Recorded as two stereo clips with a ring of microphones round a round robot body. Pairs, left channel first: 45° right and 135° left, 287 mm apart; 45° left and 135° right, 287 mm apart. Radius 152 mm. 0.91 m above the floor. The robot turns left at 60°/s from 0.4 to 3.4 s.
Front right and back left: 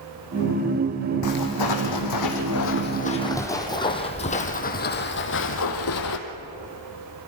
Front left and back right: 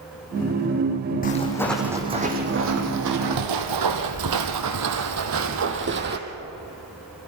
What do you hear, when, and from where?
1.2 s footsteps: 15° right, 3.5 m; by 6.2 s 80° right, 2.5 m